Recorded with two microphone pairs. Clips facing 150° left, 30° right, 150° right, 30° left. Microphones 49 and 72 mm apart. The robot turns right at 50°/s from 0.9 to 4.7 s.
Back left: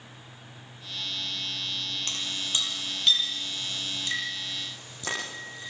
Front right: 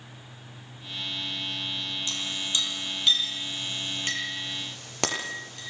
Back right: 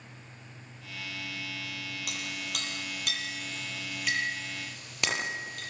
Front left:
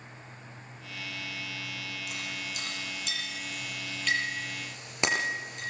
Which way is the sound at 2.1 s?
170° right.